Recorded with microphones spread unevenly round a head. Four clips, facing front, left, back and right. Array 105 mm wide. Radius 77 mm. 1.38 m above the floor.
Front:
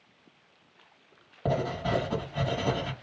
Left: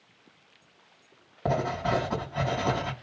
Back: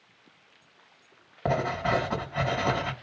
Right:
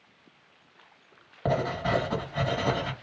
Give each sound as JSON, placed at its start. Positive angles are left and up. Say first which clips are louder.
{"t": 1.4, "sound": "writing", "louder": "even, back 2 dB", "azimuth_deg": -155, "distance_m": 2.5}